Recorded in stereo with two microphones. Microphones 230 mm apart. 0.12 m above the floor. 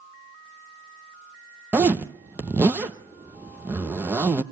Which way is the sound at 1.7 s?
10° right (ahead or behind).